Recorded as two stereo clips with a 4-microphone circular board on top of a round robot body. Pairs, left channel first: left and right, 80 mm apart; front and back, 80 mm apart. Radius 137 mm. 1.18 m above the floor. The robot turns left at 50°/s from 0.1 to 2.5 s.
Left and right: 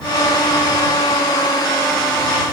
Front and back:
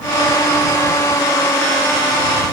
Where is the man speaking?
I don't hear a man speaking.